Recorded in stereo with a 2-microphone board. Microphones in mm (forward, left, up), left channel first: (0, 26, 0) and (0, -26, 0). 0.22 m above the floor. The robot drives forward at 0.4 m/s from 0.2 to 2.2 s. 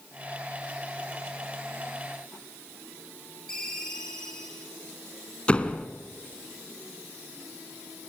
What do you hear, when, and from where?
3.5 s a ringtone: 10° left (ahead or behind), 7.5 m
5.5 s a door slam: 25° left (ahead or behind), 1.8 m